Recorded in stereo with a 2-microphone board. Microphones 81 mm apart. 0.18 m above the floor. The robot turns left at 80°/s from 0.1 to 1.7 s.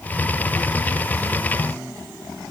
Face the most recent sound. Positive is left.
No sound to turn to.